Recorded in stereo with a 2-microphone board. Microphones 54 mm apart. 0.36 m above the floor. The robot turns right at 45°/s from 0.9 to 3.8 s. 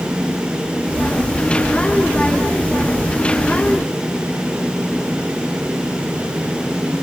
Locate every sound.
Only background noise.